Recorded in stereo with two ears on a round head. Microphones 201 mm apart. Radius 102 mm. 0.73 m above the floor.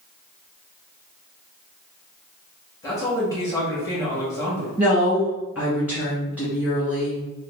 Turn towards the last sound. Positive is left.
turn(degrees=5)  # may be behind; listen again after turning